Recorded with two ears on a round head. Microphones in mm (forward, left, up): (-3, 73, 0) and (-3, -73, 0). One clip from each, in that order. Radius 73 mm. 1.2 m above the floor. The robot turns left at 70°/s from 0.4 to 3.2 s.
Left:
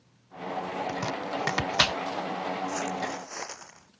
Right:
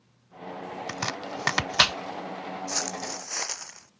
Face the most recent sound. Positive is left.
turn(degrees=-65)  # may be behind; listen again after turning